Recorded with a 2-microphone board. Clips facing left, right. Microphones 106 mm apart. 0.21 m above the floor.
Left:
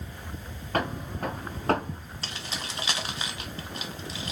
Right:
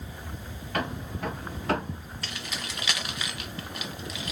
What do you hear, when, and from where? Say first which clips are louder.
0.7 s footsteps: left 2 dB; 40° left (ahead or behind), 2 m
2.2 s keys jangling: left 1 dB; 30° left (ahead or behind), 1.0 m